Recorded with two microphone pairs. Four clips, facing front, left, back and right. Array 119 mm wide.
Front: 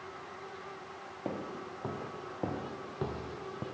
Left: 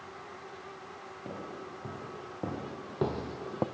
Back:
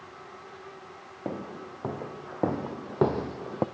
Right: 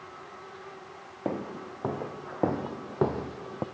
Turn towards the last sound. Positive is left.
turn(degrees=165)